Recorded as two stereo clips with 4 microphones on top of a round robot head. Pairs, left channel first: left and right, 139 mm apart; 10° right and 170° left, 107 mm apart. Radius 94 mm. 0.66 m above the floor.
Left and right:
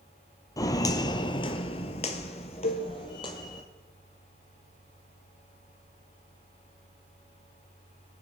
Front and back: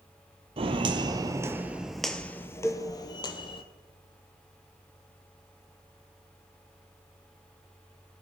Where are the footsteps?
150° left, 1.0 m; by 3.6 s 25° left, 1.2 m.